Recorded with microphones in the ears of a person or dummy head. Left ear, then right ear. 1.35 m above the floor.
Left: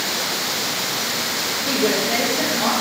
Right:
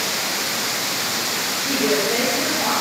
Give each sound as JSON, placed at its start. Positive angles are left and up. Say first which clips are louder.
{"t": 1.6, "sound": "a woman speaking", "louder": "even", "side_deg": 80, "distance_m": 2.5}